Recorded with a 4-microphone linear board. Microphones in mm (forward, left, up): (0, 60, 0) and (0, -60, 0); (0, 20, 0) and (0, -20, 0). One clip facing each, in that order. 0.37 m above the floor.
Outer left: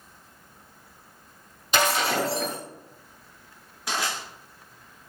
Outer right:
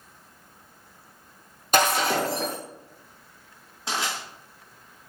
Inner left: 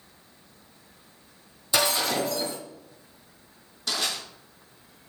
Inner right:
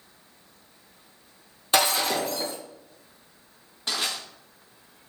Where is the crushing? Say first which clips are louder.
Even, even; 25° right (ahead or behind), 1.8 m.